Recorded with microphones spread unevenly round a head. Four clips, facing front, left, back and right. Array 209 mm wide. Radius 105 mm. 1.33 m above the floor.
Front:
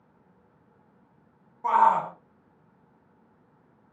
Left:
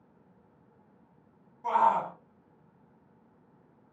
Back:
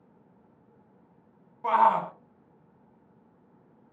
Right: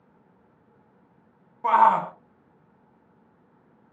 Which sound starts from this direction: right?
A shout, at 1.6 s.